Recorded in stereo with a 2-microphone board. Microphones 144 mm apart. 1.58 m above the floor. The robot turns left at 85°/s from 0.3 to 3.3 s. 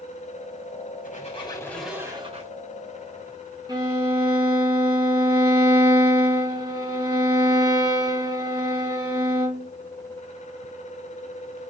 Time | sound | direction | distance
1.0 | a squeak | 70° left | 3.5 m
3.7 | a violin | 30° right (ahead or behind) | 2.5 m